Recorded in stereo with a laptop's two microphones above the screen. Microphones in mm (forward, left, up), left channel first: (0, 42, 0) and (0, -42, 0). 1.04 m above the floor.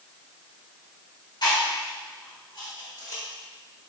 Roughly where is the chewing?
Left.